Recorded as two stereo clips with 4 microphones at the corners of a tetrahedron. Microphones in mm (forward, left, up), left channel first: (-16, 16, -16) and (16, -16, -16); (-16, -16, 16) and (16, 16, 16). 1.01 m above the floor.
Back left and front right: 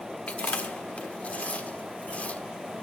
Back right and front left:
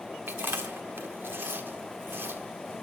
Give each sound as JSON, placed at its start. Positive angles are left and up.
{"t": 0.3, "sound": "chewing", "azimuth_deg": 80, "distance_m": 1.2}